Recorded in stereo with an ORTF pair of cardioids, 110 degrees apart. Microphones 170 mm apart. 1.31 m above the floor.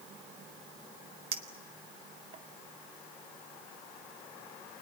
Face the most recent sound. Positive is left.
turn(degrees=-40)